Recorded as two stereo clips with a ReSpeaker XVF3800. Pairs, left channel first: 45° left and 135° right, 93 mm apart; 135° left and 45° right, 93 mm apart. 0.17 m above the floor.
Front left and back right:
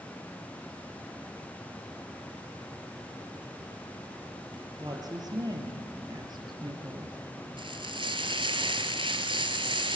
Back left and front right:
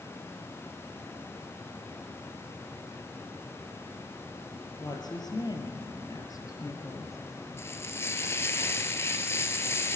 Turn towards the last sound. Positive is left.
turn(degrees=-165)